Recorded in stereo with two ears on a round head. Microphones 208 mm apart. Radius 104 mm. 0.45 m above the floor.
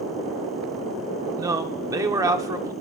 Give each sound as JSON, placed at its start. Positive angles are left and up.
{"t": 1.4, "sound": "a man speaking", "side_deg": -15, "distance_m": 0.8}